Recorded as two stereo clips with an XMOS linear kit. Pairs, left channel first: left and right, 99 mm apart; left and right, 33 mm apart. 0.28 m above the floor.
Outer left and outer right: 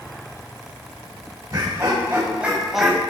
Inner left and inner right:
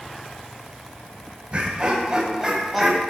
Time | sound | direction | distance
1.5 | laughter | 40° right (ahead or behind) | 1.8 m